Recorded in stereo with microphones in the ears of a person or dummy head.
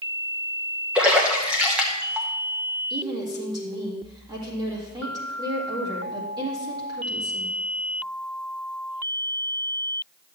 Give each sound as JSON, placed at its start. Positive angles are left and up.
{"t": 0.9, "sound": "a splash", "side_deg": -10, "distance_m": 1.3}
{"t": 2.9, "sound": "a woman speaking", "side_deg": -20, "distance_m": 2.5}